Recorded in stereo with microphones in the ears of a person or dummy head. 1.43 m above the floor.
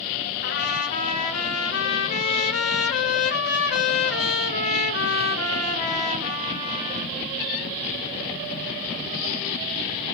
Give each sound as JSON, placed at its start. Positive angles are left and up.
{"t": 0.4, "sound": "a trumpet", "side_deg": 55, "distance_m": 1.1}